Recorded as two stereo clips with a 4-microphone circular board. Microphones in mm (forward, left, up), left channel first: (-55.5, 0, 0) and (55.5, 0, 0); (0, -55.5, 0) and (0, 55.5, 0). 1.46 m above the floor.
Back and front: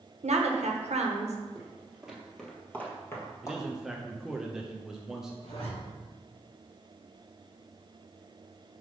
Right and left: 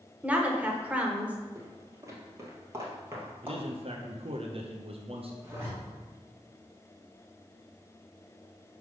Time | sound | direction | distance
0.2 | a woman speaking | 10° left | 1.0 m
1.6 | footsteps | 55° left | 1.7 m
3.4 | a man speaking | 85° left | 0.6 m
5.4 | a zipper | 160° left | 2.5 m